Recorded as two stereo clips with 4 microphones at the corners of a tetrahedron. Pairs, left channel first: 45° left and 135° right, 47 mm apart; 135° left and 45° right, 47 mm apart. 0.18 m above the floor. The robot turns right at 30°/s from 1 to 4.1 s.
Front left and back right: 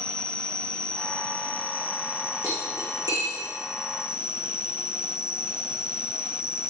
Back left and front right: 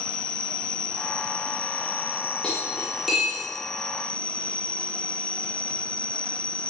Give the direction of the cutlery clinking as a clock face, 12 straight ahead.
5 o'clock.